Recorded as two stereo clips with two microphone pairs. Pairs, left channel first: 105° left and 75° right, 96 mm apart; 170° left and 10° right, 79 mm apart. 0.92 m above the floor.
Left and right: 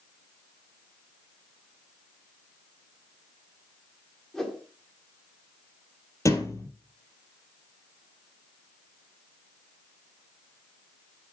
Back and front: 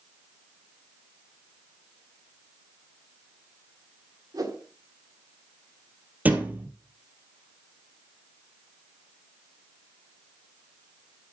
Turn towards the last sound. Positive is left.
turn(degrees=55)